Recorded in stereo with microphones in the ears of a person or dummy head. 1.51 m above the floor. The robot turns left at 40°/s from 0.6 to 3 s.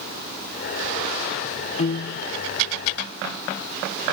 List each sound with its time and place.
1.8 s a piano: 35° left (ahead or behind), 0.6 m; by 2.2 s 50° left (ahead or behind), 0.6 m